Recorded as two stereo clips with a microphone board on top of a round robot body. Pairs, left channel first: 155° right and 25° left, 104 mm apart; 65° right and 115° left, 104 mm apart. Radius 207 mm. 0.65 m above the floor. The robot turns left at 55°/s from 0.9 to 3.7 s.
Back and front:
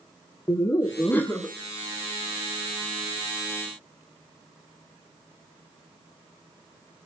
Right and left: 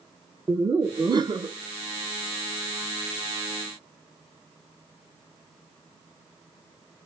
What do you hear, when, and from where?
0.5 s laughter: 150° left, 0.8 m; by 1.6 s 115° left, 0.8 m